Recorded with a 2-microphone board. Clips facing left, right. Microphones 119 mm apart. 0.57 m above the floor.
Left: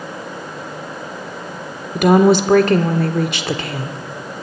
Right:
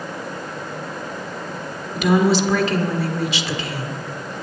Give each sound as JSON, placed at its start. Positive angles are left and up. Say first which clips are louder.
{"t": 1.9, "sound": "a woman speaking", "louder": "left 5 dB", "side_deg": 50, "distance_m": 1.2}